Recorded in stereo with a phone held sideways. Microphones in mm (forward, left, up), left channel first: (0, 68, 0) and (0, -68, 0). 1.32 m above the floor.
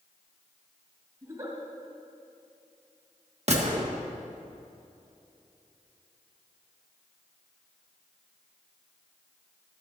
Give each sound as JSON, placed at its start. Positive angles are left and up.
{"t": 1.2, "sound": "a giggle", "side_deg": -25, "distance_m": 3.5}
{"t": 3.5, "sound": "a gunshot", "side_deg": -55, "distance_m": 1.6}